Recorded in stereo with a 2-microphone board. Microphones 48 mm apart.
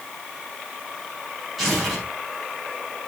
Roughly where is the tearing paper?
Centre.